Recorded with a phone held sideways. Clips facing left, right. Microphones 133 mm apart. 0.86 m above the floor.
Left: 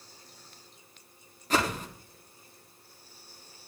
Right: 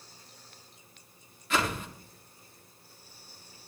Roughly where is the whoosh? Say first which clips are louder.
Left 2 dB; left.